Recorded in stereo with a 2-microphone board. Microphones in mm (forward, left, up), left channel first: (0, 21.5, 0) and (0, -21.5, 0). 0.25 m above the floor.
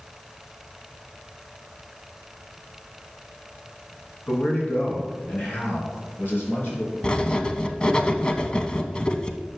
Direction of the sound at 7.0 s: 25° left (ahead or behind).